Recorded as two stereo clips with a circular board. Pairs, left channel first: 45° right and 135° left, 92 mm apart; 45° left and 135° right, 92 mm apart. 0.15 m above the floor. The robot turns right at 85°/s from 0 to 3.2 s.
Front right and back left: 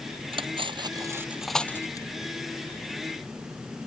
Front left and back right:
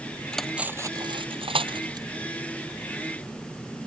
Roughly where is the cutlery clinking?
Behind left.